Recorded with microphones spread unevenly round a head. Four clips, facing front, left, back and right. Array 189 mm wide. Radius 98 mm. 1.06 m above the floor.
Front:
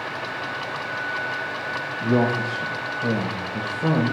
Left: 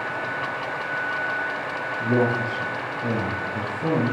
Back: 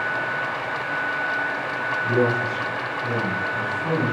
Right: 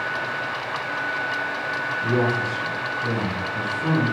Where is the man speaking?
20° left, 4 m.